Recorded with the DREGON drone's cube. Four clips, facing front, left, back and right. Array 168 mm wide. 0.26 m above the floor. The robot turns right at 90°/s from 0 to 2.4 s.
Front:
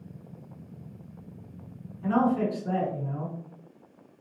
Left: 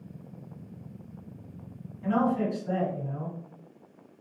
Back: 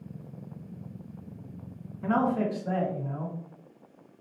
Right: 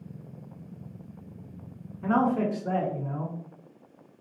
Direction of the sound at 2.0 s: 125° right.